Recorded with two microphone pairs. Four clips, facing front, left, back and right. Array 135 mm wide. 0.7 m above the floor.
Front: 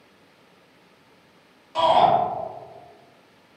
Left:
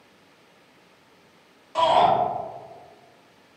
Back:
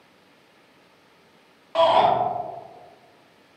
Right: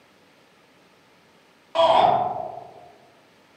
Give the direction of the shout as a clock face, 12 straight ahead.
5 o'clock.